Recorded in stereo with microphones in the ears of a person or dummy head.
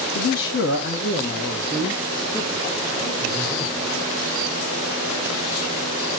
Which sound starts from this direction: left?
A man speaking, at 0.1 s.